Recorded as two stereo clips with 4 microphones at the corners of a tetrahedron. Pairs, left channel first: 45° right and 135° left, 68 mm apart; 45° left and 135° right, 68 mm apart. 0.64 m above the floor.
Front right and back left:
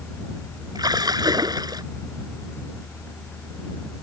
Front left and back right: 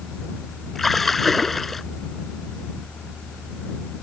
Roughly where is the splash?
Behind left.